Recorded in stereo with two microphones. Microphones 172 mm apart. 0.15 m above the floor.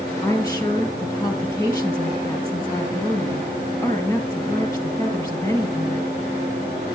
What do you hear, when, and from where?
0.2 s a woman speaking: 20° left (ahead or behind), 3.5 m